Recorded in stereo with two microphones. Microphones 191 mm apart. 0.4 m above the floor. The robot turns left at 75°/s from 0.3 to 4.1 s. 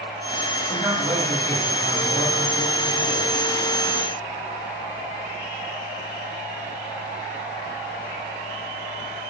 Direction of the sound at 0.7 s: 5° left.